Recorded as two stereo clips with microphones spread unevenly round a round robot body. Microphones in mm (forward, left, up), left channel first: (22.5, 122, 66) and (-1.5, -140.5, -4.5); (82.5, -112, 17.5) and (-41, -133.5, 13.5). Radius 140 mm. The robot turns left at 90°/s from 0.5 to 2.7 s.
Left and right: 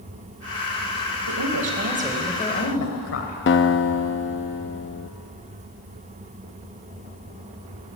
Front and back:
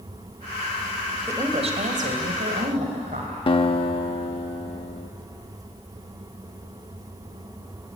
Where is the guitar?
40° left, 0.9 m.